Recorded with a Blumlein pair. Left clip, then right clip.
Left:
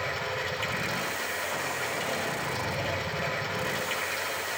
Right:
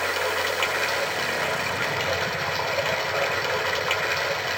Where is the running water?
60° right, 0.8 m.